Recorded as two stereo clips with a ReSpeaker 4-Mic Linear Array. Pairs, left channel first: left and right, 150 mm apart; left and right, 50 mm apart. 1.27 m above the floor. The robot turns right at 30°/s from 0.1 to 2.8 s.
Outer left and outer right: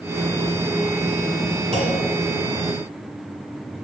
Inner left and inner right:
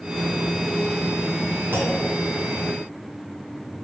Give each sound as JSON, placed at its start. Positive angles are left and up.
{"t": 1.7, "sound": "a clunk", "side_deg": -45, "distance_m": 1.9}